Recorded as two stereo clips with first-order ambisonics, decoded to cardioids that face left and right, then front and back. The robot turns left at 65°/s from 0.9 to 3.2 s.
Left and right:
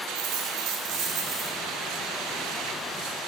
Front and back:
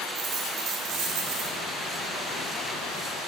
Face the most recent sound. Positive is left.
turn(degrees=85)